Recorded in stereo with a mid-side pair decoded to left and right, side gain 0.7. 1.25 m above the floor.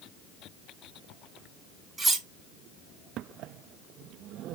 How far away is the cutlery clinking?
About 0.9 m.